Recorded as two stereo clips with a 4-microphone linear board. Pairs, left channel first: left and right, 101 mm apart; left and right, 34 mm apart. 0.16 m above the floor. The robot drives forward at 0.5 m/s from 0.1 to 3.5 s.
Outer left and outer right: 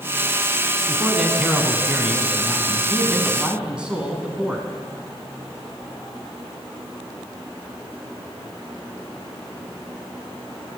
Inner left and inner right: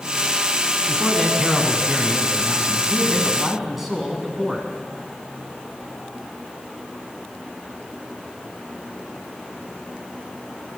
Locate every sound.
0.9 s a man speaking: 10° right (ahead or behind), 1.3 m